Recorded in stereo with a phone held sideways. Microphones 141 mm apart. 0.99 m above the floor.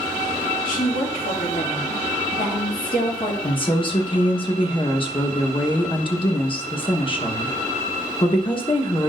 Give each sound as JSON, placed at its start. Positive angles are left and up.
{"t": 0.7, "sound": "a woman speaking", "side_deg": 75, "distance_m": 2.5}
{"t": 3.4, "sound": "a woman speaking", "side_deg": 35, "distance_m": 1.0}